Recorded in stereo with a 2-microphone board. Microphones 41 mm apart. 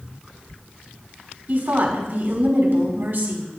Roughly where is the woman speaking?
Right.